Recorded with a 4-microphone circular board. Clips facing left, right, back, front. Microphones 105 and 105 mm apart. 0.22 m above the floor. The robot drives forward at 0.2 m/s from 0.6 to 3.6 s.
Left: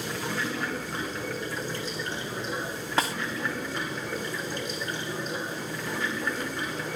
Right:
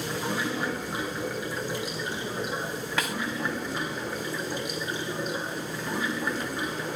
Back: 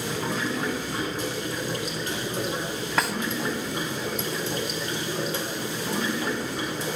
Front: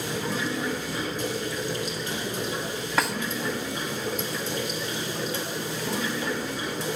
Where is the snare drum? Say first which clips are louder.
Left 4 dB, even; 90° left, 0.5 m; by 3.1 s 95° left, 0.5 m.